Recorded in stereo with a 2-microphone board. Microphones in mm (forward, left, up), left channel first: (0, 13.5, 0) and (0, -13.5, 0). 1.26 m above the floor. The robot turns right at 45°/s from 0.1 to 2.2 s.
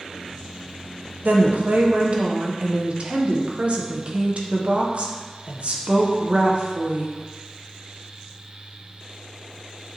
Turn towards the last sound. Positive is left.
turn(degrees=-45)